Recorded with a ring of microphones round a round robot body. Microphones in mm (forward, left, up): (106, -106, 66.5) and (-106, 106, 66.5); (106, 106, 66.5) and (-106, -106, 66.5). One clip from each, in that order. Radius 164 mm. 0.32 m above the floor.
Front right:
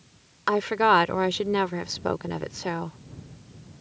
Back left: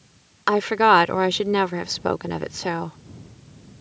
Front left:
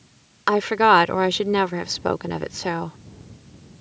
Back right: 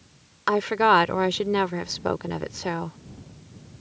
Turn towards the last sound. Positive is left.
turn(degrees=95)